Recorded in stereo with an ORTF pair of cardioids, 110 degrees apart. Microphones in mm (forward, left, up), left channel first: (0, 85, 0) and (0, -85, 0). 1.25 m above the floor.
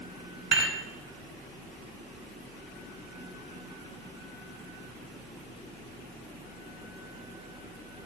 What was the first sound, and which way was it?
Dishes clattering, 10° right.